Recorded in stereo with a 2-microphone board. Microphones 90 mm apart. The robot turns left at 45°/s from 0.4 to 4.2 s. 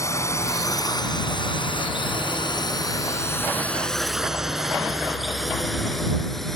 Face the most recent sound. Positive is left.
turn(degrees=5)  # may be behind; listen again after turning